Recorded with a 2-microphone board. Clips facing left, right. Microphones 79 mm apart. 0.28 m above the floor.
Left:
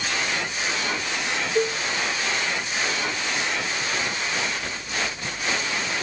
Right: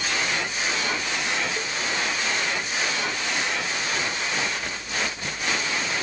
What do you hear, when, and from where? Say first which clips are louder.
1.6 s a cowbell: left 8 dB; 55° left (ahead or behind)